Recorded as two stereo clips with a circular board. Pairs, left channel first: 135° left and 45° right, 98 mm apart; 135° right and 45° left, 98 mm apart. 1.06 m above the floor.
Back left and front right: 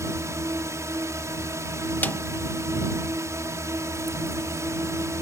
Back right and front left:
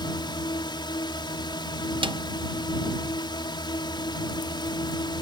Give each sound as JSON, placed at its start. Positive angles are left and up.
{"t": 0.0, "sound": "a drone", "azimuth_deg": -100}
{"t": 2.0, "sound": "a snare drum", "azimuth_deg": 65}